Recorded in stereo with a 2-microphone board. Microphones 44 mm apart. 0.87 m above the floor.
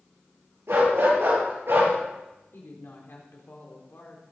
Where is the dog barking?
75° right (ahead or behind), 7.5 m; by 1.9 s 65° right (ahead or behind), 6.5 m.